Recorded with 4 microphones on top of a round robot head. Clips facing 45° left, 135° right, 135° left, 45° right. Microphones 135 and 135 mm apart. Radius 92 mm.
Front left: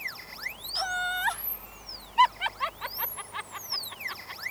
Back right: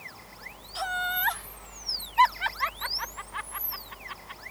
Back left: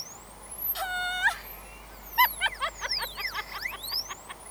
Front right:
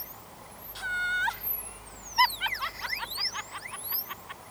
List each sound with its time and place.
0.8 s laughter: 135° left; by 4.4 s 85° left